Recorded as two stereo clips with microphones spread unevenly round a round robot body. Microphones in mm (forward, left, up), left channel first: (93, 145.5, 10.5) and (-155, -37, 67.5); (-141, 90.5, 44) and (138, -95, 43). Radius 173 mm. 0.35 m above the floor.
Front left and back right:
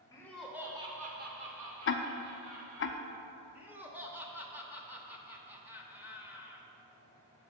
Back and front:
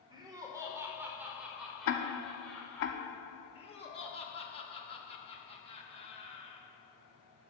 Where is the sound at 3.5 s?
115° left, 0.8 m.